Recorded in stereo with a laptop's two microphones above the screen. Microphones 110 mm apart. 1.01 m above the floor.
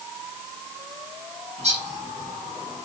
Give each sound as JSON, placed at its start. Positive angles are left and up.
{"t": 1.6, "sound": "a bird", "side_deg": -90, "distance_m": 5.5}